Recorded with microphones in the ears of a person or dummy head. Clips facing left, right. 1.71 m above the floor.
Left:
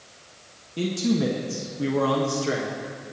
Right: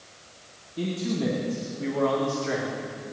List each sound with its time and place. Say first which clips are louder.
0.8 s a man speaking: left 4 dB; 75° left (ahead or behind), 1.9 m; by 2.9 s 25° left (ahead or behind), 1.6 m